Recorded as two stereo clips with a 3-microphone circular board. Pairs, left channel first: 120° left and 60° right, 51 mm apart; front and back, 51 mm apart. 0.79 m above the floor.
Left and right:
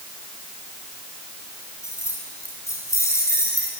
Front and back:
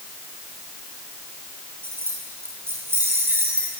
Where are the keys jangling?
140° left, 7.5 m.